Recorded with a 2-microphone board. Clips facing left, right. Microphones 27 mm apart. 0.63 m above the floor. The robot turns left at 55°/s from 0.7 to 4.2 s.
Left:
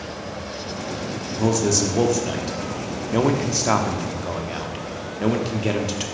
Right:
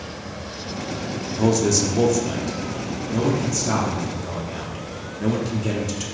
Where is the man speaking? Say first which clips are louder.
Right 1 dB; 15° right (ahead or behind), 0.8 m; by 6.0 s 35° left (ahead or behind), 0.8 m.